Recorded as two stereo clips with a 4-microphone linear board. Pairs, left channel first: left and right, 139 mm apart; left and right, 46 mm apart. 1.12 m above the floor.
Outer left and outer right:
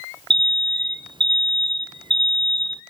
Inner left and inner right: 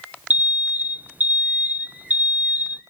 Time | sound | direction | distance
0.3 | an alarm | 35° right (ahead or behind) | 0.6 m